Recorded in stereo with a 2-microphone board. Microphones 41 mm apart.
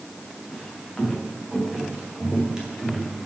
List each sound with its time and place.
0.5 s footsteps: centre (ahead or behind), 8 m; by 3.1 s 20° right (ahead or behind), 6.5 m